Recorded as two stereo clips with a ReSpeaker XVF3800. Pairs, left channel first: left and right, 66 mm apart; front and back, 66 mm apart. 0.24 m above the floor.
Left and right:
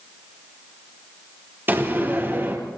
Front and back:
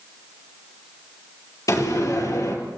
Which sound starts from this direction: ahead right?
A door slam, at 1.7 s.